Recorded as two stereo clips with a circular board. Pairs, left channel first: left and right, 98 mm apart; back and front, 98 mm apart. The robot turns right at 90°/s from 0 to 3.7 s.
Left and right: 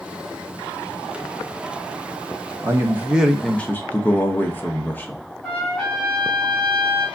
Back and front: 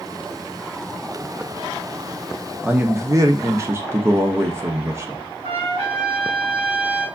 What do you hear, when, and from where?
2.6 s a man speaking: 65° right, 0.7 m; by 5.2 s 35° left, 0.7 m
5.4 s a trumpet: 5° left, 2 m